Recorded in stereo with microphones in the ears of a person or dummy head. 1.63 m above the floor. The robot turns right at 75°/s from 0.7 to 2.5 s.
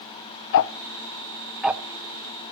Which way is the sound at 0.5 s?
65° left (ahead or behind).